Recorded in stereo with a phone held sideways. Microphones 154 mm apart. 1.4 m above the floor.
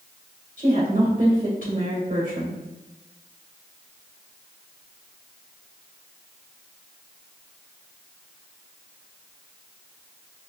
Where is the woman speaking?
60° right (ahead or behind), 1.7 m.